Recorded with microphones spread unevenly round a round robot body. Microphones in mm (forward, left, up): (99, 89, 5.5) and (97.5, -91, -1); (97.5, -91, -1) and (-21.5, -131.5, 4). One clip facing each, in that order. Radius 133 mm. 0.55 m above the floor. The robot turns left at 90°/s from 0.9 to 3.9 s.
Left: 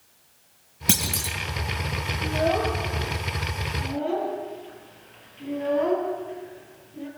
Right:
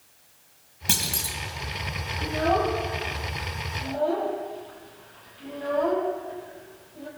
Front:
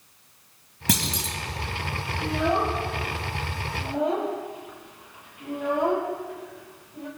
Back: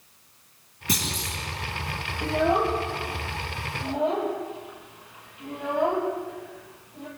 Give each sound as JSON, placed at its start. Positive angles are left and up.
{"t": 0.9, "sound": "a clunk", "azimuth_deg": 65, "distance_m": 2.0}
{"t": 2.2, "sound": "a child speaking", "azimuth_deg": -105, "distance_m": 6.5}